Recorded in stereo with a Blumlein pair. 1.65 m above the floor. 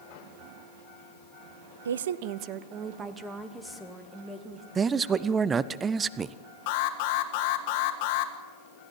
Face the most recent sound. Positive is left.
turn(degrees=45)